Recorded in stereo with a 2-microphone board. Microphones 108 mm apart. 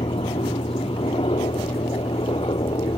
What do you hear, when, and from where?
0.0 s a helicopter: 60° left (ahead or behind); by 3.0 s 55° left (ahead or behind)